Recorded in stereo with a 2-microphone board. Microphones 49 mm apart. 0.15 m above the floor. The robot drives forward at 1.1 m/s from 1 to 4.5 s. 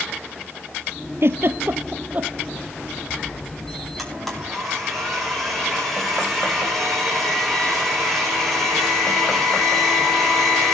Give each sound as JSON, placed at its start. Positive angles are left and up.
{"t": 1.2, "sound": "a giggle", "side_deg": -60, "distance_m": 1.1}
{"t": 4.0, "sound": "a blender", "side_deg": 5, "distance_m": 8.5}